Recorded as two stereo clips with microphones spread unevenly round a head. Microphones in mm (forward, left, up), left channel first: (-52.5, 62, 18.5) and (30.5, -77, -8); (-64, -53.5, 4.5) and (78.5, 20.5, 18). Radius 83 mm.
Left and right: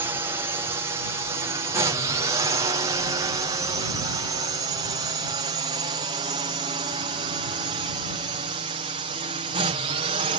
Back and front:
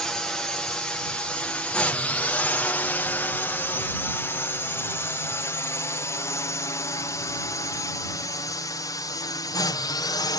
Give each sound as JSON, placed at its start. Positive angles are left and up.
{"t": 0.0, "sound": "a drone", "azimuth_deg": -80}